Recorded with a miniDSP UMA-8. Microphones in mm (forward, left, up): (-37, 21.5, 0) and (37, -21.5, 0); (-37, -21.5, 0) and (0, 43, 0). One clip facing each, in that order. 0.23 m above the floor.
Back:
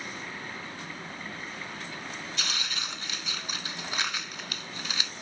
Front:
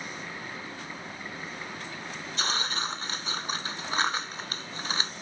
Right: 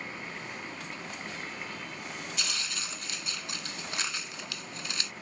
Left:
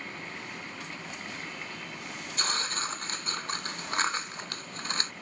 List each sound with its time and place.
2.4 s tearing paper: 20° left